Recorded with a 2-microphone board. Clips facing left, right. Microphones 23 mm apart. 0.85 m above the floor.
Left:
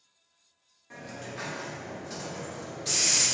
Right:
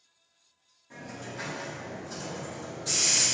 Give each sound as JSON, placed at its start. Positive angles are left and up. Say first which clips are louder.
{"t": 0.9, "sound": "a hiss", "louder": "even", "side_deg": 25, "distance_m": 1.5}